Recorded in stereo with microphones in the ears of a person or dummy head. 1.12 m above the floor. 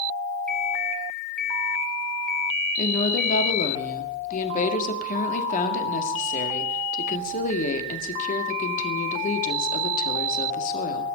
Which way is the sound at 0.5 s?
5° left (ahead or behind).